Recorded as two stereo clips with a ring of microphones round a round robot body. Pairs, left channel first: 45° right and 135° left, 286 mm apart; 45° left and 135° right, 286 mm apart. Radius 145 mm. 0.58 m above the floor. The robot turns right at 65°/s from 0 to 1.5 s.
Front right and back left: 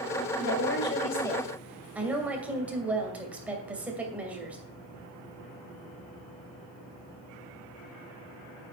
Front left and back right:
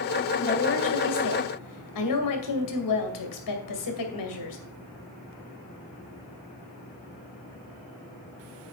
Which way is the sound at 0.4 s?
20° right.